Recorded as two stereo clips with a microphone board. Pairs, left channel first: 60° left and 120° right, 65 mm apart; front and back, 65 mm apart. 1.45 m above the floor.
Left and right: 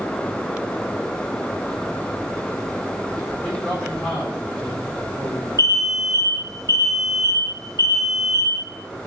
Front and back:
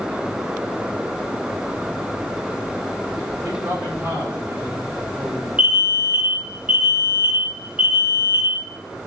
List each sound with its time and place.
3.4 s a man speaking: 135° left, 5 m
5.6 s an alarm: 110° right, 1.6 m